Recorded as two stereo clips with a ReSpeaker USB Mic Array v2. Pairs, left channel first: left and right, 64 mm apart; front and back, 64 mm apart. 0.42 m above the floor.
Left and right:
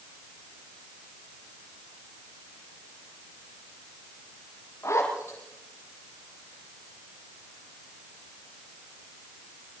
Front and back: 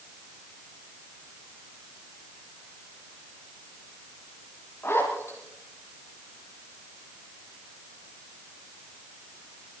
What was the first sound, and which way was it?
A zipper, 50° left.